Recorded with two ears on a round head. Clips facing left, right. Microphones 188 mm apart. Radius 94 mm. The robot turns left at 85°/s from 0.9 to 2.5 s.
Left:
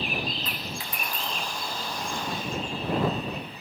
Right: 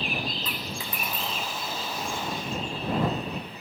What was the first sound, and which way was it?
A dropped coin, 80° right.